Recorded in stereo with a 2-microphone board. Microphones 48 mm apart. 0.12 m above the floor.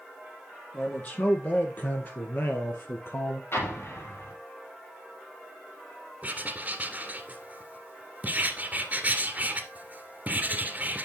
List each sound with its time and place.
0.7 s a man speaking: 30° left (ahead or behind), 4 m; by 3.4 s 60° left (ahead or behind), 2.5 m
3.5 s an explosion: 60° left (ahead or behind), 3.5 m
6.2 s writing: 35° right (ahead or behind), 1.8 m